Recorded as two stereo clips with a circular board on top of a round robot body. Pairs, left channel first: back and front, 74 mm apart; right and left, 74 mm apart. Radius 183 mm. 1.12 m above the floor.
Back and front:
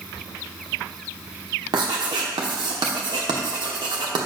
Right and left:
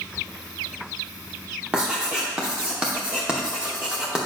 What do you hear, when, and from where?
1.7 s writing: 10° left, 0.9 m